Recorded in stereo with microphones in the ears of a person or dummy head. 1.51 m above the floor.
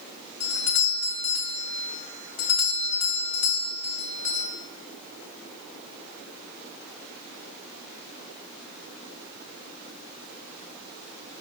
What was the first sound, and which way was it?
A doorbell, 80° left.